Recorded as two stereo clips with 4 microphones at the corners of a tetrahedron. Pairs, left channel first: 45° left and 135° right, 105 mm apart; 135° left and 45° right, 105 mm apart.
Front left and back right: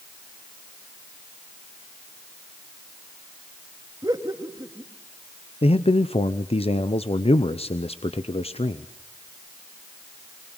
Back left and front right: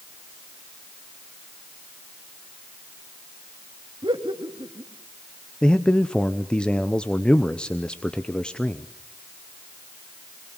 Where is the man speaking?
55° left, 0.7 m.